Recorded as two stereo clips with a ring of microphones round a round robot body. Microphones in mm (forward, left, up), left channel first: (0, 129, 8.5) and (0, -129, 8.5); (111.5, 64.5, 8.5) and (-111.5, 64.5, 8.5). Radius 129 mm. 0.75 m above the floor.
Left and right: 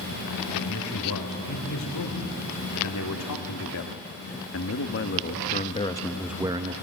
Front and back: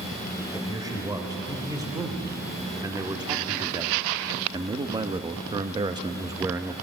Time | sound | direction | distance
0.5 | a man speaking | 105° left | 3.5 m